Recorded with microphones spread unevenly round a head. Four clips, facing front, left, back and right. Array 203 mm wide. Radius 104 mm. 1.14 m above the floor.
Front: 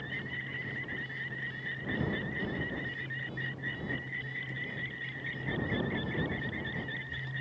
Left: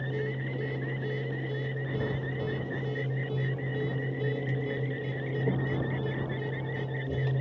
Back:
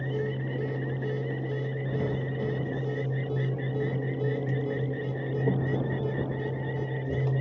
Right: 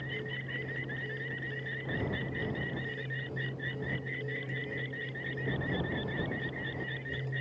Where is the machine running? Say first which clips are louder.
Left 7 dB, back 11 dB; 155° left.